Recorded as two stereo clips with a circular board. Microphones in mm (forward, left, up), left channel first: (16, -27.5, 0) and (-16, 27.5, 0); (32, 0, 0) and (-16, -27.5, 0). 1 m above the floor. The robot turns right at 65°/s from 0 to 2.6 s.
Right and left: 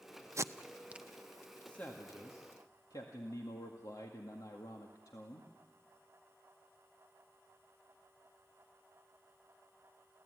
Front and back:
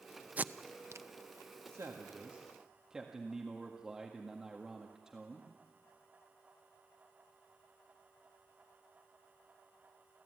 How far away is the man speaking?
About 1.9 m.